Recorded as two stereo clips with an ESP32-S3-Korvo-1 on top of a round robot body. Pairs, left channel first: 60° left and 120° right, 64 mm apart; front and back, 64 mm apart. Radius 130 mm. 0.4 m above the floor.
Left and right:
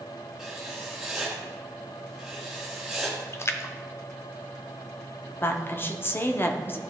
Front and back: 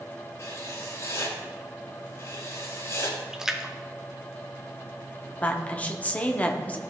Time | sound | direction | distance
0.4 | writing | 35° right | 3 m
3.3 | a splash | 100° left | 0.9 m
5.4 | a woman speaking | 50° left | 1.2 m